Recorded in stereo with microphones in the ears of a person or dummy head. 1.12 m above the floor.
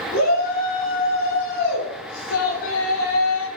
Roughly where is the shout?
Left.